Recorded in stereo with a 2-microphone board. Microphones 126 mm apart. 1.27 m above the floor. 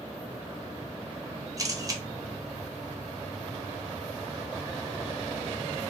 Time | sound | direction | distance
1.6 | a camera shutter | 25° right (ahead or behind) | 0.6 m